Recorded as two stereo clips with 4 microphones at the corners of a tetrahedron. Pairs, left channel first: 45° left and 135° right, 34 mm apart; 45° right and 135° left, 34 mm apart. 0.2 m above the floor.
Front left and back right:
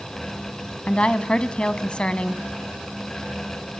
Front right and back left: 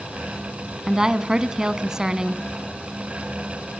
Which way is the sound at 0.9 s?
75° left.